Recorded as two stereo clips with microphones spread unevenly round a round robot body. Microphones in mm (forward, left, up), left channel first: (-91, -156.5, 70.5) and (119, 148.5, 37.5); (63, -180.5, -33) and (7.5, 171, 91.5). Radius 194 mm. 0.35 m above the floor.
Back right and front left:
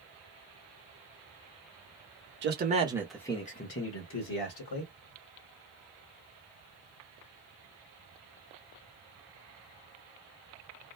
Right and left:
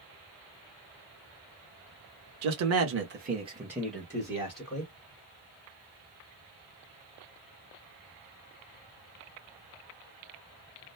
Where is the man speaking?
60° left, 1.0 m; by 4.9 s 130° right, 1.5 m.